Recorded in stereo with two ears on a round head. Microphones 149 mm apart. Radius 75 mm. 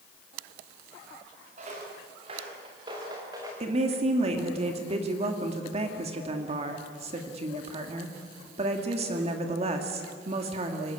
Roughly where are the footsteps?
Right.